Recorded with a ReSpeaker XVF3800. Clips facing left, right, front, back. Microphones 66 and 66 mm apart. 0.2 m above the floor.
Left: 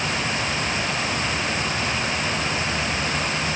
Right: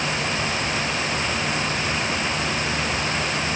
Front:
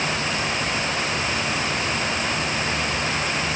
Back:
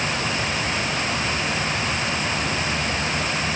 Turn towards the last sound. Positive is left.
No sound to turn to.